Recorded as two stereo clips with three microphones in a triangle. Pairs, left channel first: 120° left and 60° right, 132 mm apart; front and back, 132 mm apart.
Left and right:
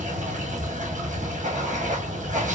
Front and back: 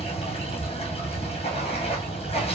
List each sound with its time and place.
0.0 s running water: 40° right, 2 m